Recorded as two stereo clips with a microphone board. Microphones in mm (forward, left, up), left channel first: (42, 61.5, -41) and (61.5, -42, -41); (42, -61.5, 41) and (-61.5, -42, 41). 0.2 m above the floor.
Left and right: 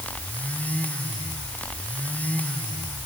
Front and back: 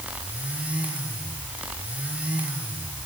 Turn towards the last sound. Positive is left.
No sound to turn to.